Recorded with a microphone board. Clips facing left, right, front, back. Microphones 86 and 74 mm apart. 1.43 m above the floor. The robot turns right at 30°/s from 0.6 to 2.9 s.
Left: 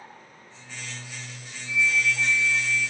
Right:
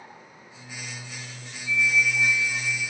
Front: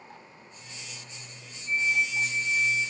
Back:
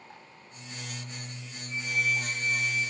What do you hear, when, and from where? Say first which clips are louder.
1.7 s a flute: right 1 dB, front 2 dB; 145° left, 3 m; by 2.8 s straight behind, 3 m